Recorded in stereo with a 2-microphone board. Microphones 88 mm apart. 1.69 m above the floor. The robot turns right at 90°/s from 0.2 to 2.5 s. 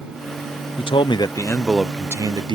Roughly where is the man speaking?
Left.